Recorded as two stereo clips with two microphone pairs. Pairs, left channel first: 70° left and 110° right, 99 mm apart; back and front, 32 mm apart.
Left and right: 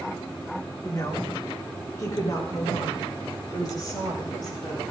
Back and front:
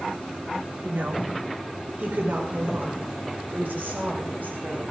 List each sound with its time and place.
0.8 s a woman speaking: 15° left, 2.5 m; by 4.8 s 20° left, 6.5 m